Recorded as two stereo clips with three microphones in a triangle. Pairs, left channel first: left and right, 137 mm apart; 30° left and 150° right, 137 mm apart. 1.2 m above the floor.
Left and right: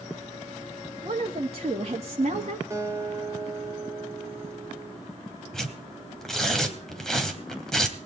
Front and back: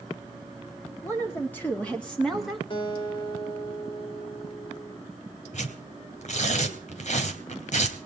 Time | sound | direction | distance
1.0 | a woman speaking | 40° right | 3.5 m
2.7 | a guitar | 20° right | 3 m
5.5 | tearing paper | 5° left | 2.5 m